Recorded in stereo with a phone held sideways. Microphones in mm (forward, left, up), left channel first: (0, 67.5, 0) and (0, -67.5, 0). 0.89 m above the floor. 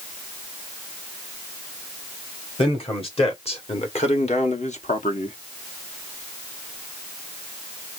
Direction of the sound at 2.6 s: 40° left (ahead or behind).